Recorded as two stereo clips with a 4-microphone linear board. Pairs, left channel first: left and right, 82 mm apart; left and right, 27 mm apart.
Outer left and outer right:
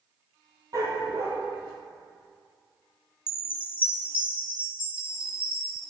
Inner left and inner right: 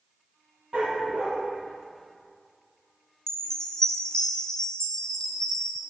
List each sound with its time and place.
0.7 s a dog barking: 45° right (ahead or behind), 2 m
3.3 s a chime: 25° left (ahead or behind), 0.8 m